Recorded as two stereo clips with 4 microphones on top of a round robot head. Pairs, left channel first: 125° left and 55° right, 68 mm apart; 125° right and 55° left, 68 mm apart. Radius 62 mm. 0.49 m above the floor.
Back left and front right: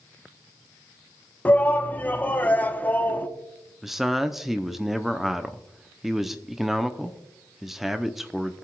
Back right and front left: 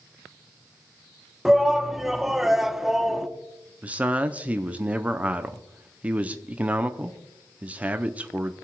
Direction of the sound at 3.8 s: 25° left.